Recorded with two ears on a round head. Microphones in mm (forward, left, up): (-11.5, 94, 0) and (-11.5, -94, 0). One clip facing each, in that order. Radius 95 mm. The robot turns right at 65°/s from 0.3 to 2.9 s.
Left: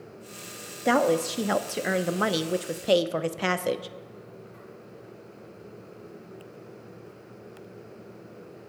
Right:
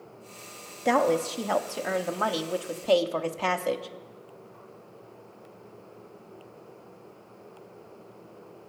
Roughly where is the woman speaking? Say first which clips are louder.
Left 1 dB; centre.